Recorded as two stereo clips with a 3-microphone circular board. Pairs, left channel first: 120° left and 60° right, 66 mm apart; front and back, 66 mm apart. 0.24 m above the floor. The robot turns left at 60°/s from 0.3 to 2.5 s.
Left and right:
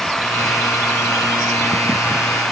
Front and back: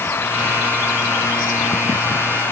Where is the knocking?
No knocking in this recording.